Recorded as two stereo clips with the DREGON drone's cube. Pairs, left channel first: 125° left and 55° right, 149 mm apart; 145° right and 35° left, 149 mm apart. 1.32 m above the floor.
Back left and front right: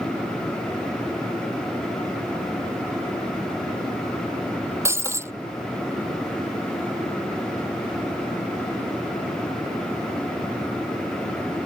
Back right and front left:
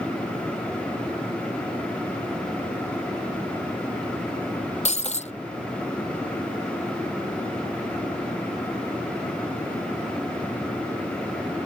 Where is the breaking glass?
125° right.